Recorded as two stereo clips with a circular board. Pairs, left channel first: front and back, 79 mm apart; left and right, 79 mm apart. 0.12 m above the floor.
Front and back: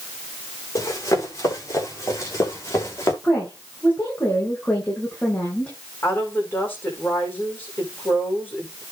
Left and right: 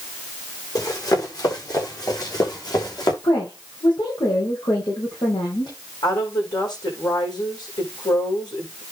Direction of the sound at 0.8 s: 50° left.